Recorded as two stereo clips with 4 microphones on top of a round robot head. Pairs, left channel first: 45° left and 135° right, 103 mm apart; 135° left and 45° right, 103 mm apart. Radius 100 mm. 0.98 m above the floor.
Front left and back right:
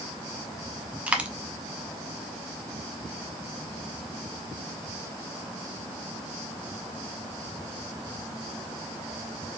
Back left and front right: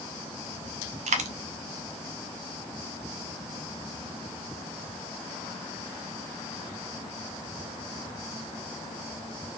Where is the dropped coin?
55° right, 0.5 m.